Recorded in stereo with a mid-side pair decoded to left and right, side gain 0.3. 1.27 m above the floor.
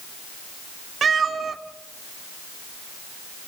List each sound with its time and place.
1.0 s a cat meowing: 65° right, 1.9 m